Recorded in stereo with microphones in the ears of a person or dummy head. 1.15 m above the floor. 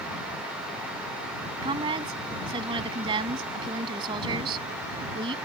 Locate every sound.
1.6 s a woman speaking: 25° right (ahead or behind)